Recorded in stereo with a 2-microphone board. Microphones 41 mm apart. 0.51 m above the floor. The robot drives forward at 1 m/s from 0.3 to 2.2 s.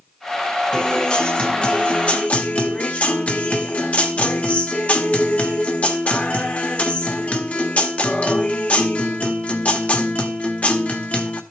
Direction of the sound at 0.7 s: 20° left (ahead or behind).